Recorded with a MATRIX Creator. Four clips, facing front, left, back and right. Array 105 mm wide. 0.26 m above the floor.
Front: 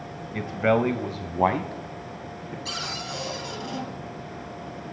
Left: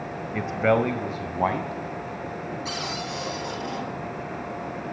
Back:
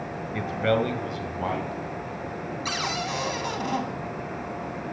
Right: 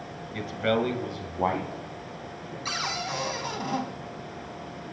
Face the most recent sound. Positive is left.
turn(degrees=-155)